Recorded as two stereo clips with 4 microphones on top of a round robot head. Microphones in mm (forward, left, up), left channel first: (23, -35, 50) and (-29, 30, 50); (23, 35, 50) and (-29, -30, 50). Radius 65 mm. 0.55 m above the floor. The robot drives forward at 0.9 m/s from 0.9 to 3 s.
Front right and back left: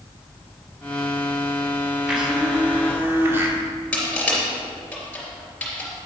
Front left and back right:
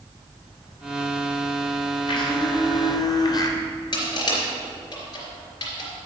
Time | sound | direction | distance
2.1 | a blender | 45° left | 2 m
3.9 | crushing | 25° left | 3.5 m